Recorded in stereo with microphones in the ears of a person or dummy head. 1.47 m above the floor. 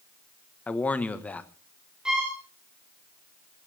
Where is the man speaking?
15° left (ahead or behind), 1.5 m.